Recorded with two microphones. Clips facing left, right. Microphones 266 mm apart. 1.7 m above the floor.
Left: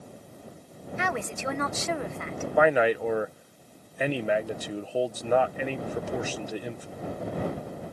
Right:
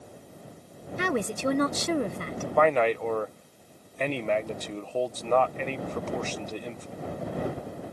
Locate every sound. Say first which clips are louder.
1.0 s a woman speaking: right 5 dB; 40° right (ahead or behind)
2.6 s a man speaking: left 1 dB; 10° left (ahead or behind)